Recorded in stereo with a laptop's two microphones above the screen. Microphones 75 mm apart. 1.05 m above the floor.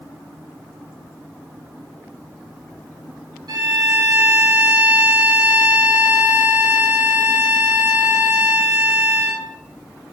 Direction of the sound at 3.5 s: 65° right (ahead or behind).